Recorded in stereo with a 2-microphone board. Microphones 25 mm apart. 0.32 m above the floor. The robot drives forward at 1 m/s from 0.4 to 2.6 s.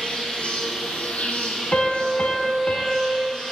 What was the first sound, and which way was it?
An insect, 45° left (ahead or behind).